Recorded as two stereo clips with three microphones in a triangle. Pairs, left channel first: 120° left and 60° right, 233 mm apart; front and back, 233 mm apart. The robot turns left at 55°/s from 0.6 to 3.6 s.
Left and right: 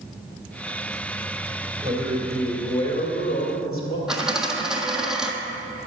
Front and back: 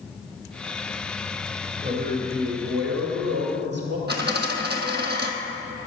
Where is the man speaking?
120° right, 2.5 m; by 4.0 s 140° left, 2.5 m.